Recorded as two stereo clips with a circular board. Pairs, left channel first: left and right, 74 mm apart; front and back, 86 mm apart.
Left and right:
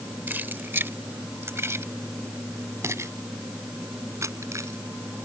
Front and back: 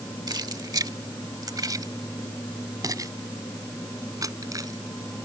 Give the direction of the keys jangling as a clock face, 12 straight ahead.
5 o'clock.